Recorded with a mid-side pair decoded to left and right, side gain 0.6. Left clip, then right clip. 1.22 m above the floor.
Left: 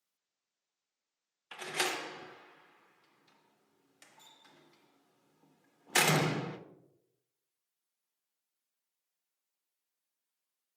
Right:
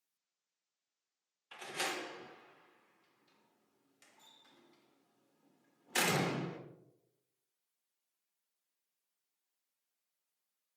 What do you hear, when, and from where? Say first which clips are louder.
1.5 s a door slam: left 5 dB; 45° left, 0.5 m